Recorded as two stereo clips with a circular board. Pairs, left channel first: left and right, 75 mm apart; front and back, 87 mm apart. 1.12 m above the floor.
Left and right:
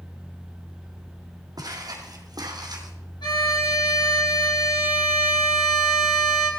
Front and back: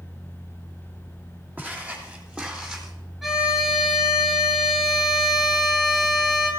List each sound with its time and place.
1.6 s footsteps: 110° right, 3 m; by 2.9 s 95° right, 2.5 m
3.2 s a violin: 95° left, 4.5 m